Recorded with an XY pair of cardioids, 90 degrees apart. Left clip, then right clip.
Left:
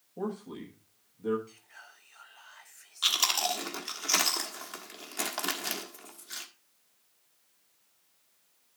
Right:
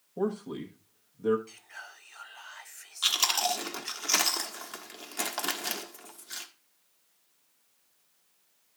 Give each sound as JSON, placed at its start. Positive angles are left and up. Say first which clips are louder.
{"t": 0.2, "sound": "a man speaking", "louder": "right 5 dB", "azimuth_deg": -50, "distance_m": 1.2}
{"t": 1.5, "sound": "whispering", "louder": "right 6 dB", "azimuth_deg": -55, "distance_m": 0.7}
{"t": 3.0, "sound": "chewing", "louder": "right 1 dB", "azimuth_deg": -5, "distance_m": 1.3}